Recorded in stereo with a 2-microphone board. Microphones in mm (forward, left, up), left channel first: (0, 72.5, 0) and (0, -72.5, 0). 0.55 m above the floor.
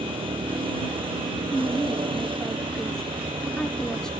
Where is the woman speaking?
5° left (ahead or behind).